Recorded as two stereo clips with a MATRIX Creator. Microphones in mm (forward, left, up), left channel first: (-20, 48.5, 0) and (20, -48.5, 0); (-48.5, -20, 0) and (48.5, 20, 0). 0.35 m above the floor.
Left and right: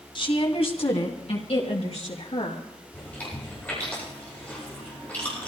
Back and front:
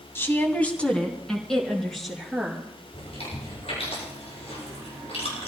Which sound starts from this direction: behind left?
A woman speaking, at 0.1 s.